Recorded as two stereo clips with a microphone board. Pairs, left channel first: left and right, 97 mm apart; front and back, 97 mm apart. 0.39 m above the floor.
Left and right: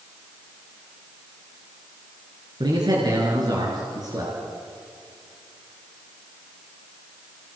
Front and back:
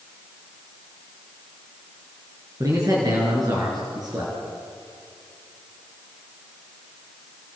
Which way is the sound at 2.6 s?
130° right.